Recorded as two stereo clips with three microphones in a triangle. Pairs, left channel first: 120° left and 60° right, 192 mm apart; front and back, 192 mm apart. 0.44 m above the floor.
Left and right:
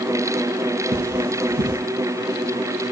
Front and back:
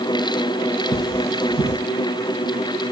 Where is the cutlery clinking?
95° right, 6.5 m.